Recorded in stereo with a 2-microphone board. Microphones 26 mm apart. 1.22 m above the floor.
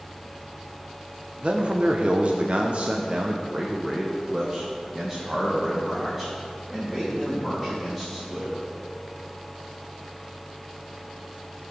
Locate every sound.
1.4 s a man speaking: 40° right (ahead or behind), 1.0 m; by 8.7 s 5° right (ahead or behind), 3 m